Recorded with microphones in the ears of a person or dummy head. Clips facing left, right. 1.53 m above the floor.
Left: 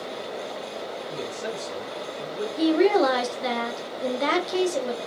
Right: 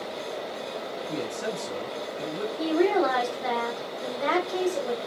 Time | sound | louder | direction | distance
1.1 | a man speaking | right 3 dB | 45° right (ahead or behind) | 1.9 m
2.6 | a woman speaking | left 4 dB | 45° left (ahead or behind) | 0.9 m